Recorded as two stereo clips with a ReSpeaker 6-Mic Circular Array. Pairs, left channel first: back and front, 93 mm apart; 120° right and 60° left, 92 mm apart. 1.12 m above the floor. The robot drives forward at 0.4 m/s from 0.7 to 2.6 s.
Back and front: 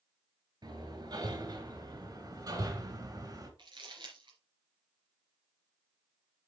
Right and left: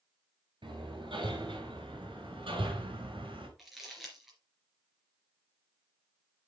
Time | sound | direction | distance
0.6 | hammering | 35° left | 4 m
3.6 | crumpling | 25° right | 3 m